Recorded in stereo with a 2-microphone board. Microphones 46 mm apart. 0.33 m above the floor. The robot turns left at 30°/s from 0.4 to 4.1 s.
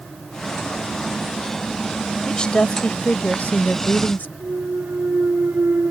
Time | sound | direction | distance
2.3 | a woman speaking | 155° left | ?
4.4 | a clunk | 55° right (ahead or behind) | ?